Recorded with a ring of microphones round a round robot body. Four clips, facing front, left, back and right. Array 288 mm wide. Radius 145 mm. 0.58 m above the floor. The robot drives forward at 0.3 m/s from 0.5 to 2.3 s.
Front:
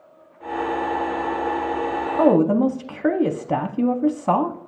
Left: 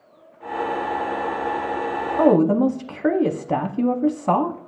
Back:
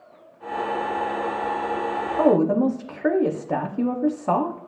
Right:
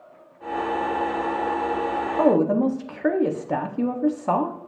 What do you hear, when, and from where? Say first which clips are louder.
2.2 s a woman speaking: left 3 dB, front 2 dB; 35° left, 0.6 m; by 4.6 s 45° left, 0.6 m